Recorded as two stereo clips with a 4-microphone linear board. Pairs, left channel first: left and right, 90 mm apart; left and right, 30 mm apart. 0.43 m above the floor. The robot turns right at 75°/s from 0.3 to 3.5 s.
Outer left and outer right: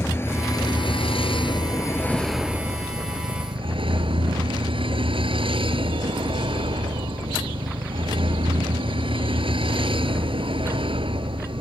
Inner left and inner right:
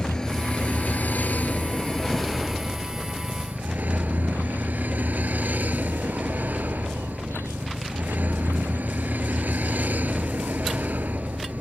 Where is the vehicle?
30° left; by 11.6 s 90° right.